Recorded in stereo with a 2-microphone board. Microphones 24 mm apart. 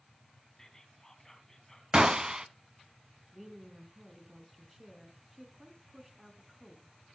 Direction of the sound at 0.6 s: 20° left (ahead or behind).